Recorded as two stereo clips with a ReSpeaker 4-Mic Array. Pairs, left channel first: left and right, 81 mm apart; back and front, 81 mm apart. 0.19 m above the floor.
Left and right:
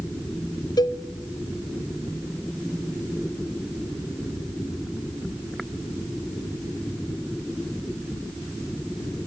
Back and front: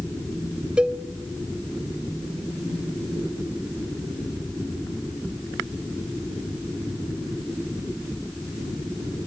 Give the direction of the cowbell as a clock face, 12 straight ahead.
10 o'clock.